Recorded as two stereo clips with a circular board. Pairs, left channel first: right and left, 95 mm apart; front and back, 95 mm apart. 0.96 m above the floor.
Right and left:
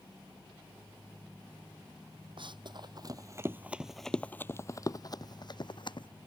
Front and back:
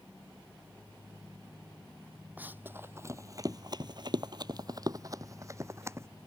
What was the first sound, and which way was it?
Running footsteps, 110° left.